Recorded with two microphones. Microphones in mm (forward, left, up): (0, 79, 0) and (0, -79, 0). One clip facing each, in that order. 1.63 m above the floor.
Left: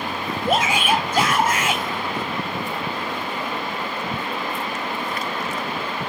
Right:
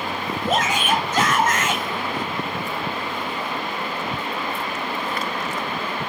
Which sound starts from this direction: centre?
A shout, at 0.5 s.